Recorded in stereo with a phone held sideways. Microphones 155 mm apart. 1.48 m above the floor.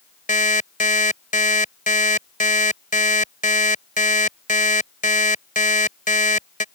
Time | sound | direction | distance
0.3 | an alarm clock | 60° left (ahead or behind) | ?